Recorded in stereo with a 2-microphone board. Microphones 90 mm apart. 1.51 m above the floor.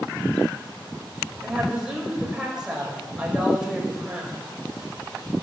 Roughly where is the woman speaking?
Centre.